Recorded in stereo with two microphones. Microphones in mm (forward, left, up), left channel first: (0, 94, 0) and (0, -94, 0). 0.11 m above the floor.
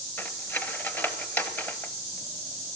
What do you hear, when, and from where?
0.2 s cutlery clinking: 10° left (ahead or behind), 1.1 m